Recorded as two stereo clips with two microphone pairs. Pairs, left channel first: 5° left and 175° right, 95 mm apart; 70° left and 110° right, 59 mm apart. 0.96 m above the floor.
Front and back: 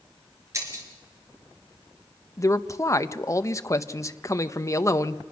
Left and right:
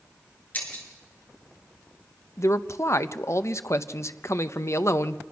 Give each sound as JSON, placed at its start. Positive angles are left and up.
{"t": 0.5, "sound": "breaking glass", "azimuth_deg": 130, "distance_m": 4.0}
{"t": 2.4, "sound": "a man speaking", "azimuth_deg": 55, "distance_m": 0.7}